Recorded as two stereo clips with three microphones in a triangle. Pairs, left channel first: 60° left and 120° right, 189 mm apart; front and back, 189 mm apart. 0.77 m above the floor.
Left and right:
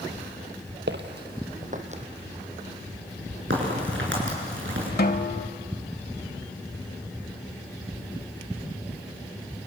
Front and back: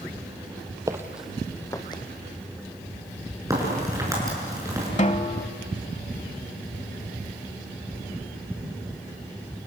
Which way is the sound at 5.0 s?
45° left.